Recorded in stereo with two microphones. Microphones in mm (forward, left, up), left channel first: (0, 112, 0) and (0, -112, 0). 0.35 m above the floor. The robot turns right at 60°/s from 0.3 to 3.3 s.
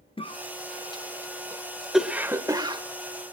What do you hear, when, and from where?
0.2 s a cough: 25° left (ahead or behind), 0.9 m; by 2.8 s 20° right (ahead or behind), 0.9 m